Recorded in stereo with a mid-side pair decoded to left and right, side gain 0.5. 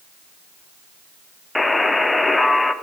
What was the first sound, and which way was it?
A buzzer, 10° left.